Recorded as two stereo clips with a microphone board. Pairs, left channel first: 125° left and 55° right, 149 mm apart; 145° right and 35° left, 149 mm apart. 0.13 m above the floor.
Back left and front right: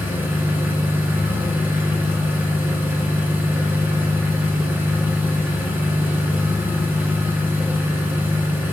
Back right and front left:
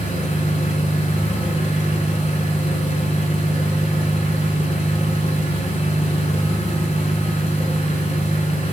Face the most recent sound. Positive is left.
turn(degrees=-130)